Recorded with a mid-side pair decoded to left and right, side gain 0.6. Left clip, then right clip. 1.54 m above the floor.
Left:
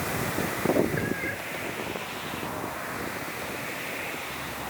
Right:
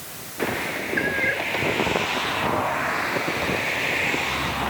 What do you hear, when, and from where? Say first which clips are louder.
1.0 s a cat meowing: right 8 dB; 45° right